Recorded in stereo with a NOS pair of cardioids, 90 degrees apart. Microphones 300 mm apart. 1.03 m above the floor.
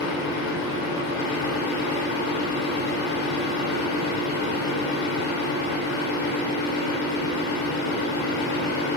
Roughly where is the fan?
Ahead left.